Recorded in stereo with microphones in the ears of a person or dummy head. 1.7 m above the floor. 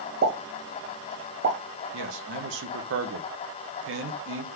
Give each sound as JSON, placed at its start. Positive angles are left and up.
{"t": 0.2, "sound": "a pop", "side_deg": -50, "distance_m": 0.8}
{"t": 1.9, "sound": "a man speaking", "side_deg": -75, "distance_m": 0.7}